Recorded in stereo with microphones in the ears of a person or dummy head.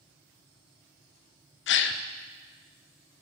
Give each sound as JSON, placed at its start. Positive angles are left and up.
{"t": 1.7, "sound": "a gasp", "side_deg": 60, "distance_m": 0.5}